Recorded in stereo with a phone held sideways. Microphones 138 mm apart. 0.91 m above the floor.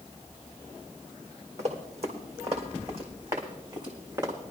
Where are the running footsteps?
55° right (ahead or behind), 3 m; by 4.3 s 35° right (ahead or behind), 4 m.